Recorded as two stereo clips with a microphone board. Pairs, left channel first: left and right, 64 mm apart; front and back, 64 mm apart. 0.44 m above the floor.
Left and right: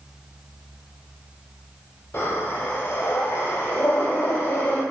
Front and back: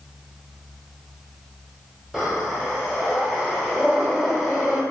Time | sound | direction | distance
2.1 | breathing | 100° left | 1.2 m